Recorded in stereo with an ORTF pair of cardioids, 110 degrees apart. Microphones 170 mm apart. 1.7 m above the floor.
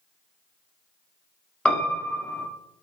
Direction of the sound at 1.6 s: 5° left.